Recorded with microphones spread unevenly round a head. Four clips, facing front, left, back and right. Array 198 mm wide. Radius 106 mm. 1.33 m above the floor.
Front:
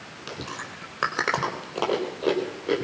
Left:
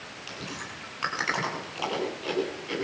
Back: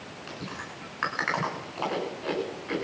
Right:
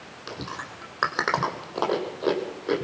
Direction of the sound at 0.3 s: 40° right.